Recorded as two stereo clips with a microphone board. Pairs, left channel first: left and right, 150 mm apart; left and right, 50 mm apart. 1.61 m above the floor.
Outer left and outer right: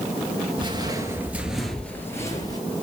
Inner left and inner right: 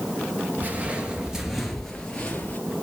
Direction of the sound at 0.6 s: 35° right (ahead or behind).